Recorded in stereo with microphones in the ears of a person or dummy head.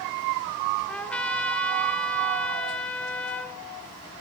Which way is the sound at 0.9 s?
5° left (ahead or behind).